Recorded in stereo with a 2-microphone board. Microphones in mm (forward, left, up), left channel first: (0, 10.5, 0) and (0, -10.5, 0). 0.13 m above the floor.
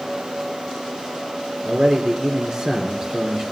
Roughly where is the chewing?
I don't hear chewing.